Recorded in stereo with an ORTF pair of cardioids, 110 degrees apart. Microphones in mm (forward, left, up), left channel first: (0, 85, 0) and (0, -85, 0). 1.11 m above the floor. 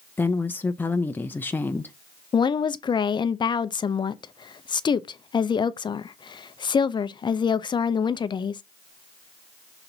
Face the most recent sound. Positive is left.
turn(degrees=25)